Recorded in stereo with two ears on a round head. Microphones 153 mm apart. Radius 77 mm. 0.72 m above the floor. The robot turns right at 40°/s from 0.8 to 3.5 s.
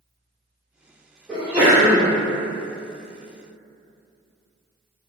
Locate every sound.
1.3 s a sneeze: 5° right (ahead or behind), 0.7 m; by 2.1 s 20° right (ahead or behind), 0.7 m